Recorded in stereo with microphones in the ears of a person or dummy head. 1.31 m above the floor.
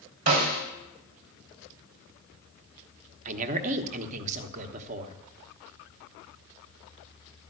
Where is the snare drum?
40° right (ahead or behind), 2.5 m.